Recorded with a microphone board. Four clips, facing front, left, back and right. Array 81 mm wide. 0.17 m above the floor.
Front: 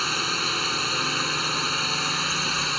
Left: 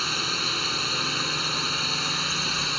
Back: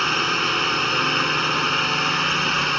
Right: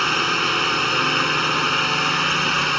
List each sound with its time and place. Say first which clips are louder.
0.0 s a drone: right 10 dB, back 6 dB; 120° right